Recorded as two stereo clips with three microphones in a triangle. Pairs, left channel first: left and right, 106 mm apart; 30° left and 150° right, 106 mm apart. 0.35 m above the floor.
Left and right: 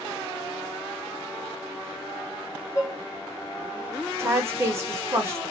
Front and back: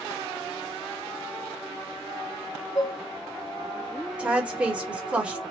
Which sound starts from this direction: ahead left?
Dishes clattering, at 2.8 s.